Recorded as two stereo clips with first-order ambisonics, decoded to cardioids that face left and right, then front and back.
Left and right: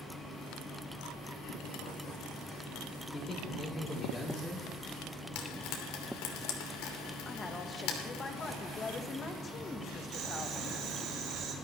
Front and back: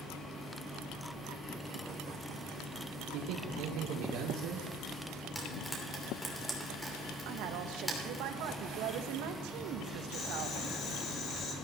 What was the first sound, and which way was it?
A man speaking, 160° left.